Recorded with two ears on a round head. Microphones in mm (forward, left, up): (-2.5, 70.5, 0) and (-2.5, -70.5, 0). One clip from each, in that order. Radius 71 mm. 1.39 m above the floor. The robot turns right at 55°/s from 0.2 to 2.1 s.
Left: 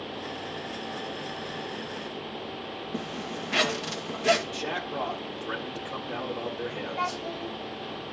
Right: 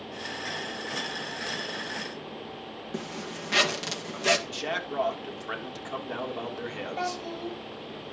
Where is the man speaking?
90° right, 3.5 m.